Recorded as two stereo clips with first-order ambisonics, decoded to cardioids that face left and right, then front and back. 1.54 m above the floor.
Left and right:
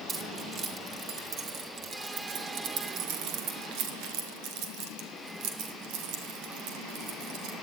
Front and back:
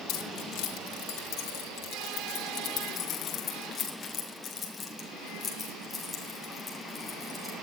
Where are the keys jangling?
30° right, 4 m; by 7.5 s 85° right, 5.5 m.